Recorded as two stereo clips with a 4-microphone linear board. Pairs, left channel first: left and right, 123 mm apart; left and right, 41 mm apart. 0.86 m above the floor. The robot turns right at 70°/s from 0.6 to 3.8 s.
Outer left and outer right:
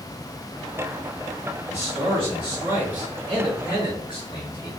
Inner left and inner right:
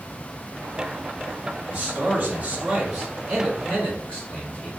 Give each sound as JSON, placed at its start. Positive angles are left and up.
{"t": 1.7, "sound": "a man speaking", "azimuth_deg": -95, "distance_m": 1.5}